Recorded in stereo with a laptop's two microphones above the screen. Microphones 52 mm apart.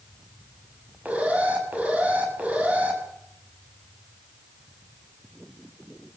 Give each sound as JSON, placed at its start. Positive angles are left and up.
{"t": 1.1, "sound": "an alarm", "side_deg": -30, "distance_m": 6.0}